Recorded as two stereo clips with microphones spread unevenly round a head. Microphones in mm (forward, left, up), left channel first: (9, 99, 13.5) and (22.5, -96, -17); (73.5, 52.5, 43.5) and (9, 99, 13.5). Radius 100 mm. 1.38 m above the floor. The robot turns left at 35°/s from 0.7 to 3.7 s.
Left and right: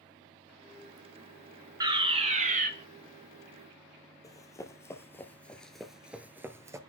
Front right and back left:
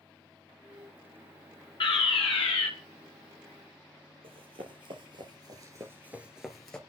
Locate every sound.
1.8 s a fire alarm: 25° right, 2.5 m; by 2.7 s 55° right, 2.5 m
4.2 s running footsteps: 155° left, 2.5 m; by 6.8 s 10° right, 1.6 m